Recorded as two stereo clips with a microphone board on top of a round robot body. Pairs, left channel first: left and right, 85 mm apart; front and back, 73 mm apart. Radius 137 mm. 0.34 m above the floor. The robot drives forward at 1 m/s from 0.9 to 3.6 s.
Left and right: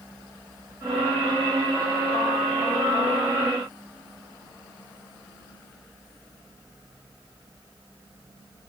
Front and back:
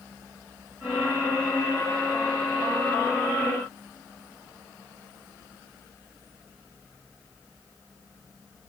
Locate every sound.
Only background noise.